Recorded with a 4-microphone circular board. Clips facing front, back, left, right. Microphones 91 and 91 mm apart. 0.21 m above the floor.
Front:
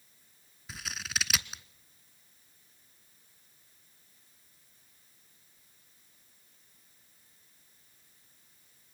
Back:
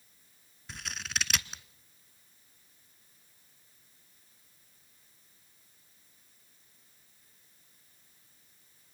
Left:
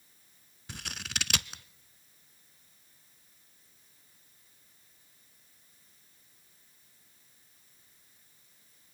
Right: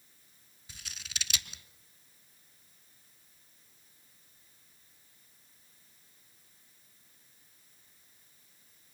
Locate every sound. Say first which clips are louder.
0.7 s scissors: even, left 7 dB; 90° left, 0.7 m